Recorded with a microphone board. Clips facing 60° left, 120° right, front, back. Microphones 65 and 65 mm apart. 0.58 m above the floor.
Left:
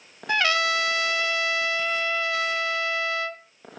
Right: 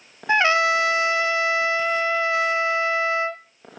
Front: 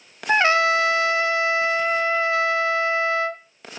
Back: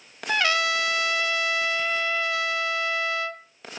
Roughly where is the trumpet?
Ahead right.